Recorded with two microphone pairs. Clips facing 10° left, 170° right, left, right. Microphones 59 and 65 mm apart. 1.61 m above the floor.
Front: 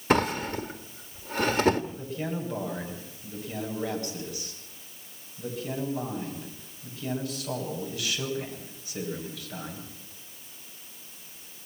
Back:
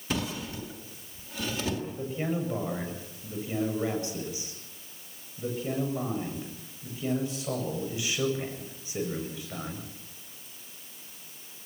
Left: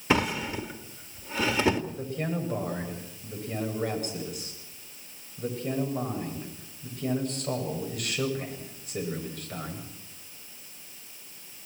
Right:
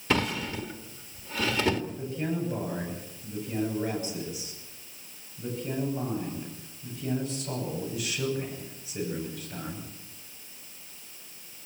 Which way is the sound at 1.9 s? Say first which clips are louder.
Back 2 dB, even; 125° left.